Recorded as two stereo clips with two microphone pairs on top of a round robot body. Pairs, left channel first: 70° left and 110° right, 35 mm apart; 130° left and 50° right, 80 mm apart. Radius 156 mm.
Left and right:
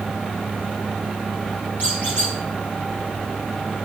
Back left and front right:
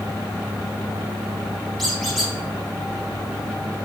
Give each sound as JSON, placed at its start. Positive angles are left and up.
{"t": 1.8, "sound": "a squeak", "azimuth_deg": 40, "distance_m": 2.0}